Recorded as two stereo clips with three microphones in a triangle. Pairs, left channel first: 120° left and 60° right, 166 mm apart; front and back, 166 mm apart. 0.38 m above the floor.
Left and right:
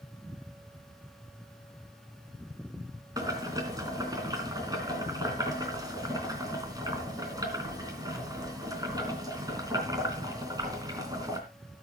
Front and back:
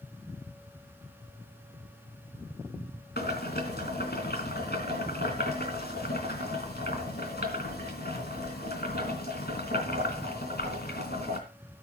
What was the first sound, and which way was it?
Boiling, 5° left.